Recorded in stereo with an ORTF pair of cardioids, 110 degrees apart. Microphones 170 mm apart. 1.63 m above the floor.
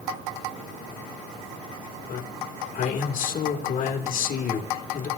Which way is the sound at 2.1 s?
60° left.